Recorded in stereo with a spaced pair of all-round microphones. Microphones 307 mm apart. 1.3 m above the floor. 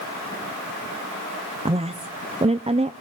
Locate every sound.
1.6 s a woman speaking: 20° right (ahead or behind), 0.6 m